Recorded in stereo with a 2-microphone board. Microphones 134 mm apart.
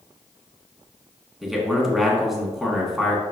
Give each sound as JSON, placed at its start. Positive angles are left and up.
{"t": 1.4, "sound": "a man speaking", "side_deg": 0, "distance_m": 1.8}